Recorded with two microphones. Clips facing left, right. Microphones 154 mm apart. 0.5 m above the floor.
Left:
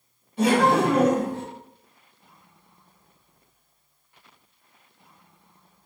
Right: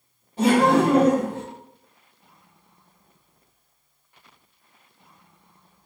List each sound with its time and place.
0.4 s laughter: 40° right (ahead or behind), 1.7 m; by 1.4 s 20° right (ahead or behind), 1.2 m